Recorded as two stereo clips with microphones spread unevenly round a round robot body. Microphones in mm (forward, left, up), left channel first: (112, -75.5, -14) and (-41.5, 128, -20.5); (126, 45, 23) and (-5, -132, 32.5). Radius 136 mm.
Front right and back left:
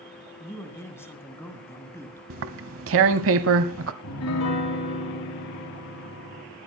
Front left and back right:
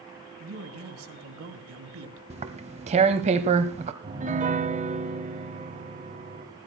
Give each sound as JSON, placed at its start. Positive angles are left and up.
{"t": 0.4, "sound": "a man speaking", "azimuth_deg": -135, "distance_m": 2.5}
{"t": 2.3, "sound": "tearing paper", "azimuth_deg": 170, "distance_m": 0.8}
{"t": 4.0, "sound": "a piano", "azimuth_deg": -75, "distance_m": 2.5}